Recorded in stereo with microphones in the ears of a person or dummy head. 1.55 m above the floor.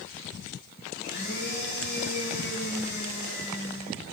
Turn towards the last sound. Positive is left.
turn(degrees=60)  # may be behind; listen again after turning